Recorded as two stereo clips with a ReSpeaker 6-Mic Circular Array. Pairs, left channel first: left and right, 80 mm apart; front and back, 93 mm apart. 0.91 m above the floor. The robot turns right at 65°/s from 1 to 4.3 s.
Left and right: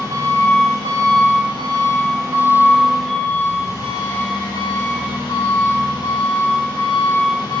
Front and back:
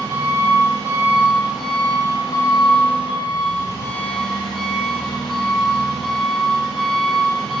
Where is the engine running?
130° right, 1.1 m; by 7.6 s 85° left, 1.1 m.